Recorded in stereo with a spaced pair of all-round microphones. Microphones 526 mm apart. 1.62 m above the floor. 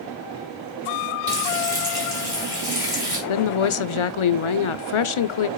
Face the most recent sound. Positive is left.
turn(degrees=65)  # may be behind; listen again after turning